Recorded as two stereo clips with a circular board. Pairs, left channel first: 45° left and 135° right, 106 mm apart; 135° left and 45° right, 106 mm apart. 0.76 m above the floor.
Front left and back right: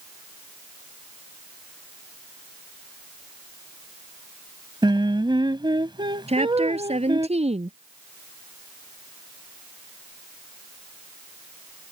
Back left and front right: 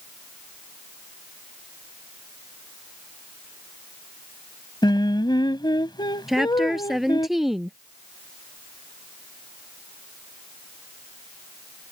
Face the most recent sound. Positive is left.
turn(degrees=-130)